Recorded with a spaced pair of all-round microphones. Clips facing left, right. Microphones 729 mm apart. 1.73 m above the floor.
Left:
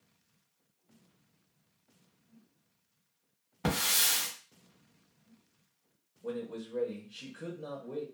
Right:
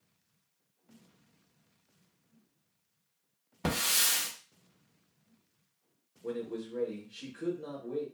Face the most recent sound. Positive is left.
turn(degrees=20)  # may be behind; listen again after turning